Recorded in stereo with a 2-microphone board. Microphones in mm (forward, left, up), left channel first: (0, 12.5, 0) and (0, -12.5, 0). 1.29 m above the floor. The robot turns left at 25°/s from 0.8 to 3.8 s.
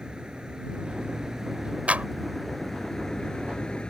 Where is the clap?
65° right (ahead or behind); by 2.1 s 70° right (ahead or behind).